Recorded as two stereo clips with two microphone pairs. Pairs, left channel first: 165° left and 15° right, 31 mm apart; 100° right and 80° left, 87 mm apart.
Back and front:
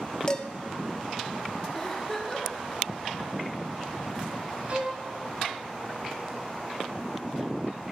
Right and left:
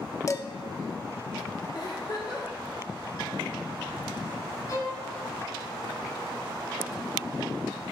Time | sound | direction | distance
0.3 | dishes clattering | 140° right | 0.7 m
1.8 | a giggle | 125° right | 2 m
4.7 | a violin | 55° right | 2.5 m